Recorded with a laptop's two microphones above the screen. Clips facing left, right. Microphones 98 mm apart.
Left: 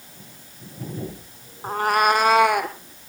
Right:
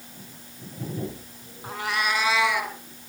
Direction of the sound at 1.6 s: 40° left (ahead or behind).